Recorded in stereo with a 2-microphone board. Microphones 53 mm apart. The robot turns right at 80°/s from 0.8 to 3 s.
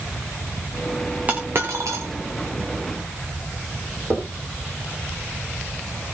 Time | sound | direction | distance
1.3 | a dropped coin | 30° right (ahead or behind) | 3.5 m
4.1 | knocking | 40° right (ahead or behind) | 6 m